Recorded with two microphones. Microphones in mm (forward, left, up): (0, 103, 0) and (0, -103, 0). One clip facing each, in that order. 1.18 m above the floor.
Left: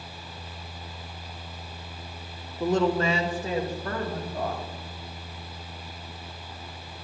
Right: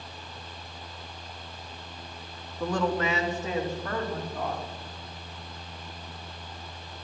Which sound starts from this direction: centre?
A woman speaking, at 2.6 s.